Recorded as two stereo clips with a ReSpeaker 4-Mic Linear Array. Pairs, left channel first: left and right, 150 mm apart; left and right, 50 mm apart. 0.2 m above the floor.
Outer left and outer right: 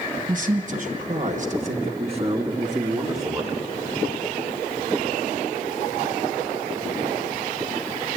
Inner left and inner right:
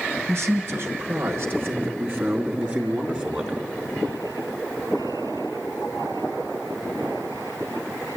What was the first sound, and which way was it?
A man speaking, 65° right (ahead or behind).